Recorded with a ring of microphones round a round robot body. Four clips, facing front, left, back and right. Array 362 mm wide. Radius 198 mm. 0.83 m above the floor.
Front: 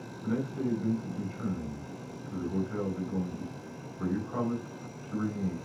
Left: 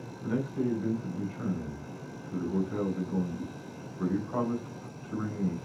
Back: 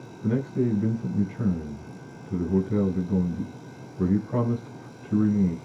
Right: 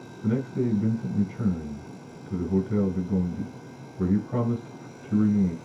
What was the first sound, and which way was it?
A man speaking, 140° right.